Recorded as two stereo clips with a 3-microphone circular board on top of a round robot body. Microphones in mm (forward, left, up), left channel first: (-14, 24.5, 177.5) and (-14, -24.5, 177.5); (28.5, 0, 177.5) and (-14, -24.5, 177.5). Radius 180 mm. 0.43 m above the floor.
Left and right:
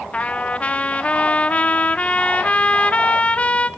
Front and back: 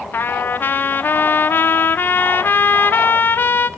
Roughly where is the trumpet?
Ahead left.